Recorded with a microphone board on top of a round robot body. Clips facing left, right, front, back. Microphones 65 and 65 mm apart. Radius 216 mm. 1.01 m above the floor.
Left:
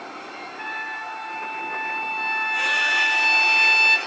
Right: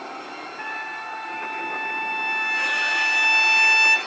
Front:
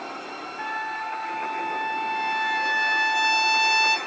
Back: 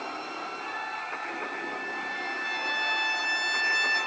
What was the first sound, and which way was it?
A trumpet, 5° right.